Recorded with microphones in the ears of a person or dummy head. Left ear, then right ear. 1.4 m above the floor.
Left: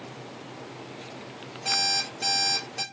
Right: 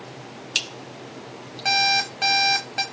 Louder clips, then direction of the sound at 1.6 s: Right 6 dB; 20° right (ahead or behind).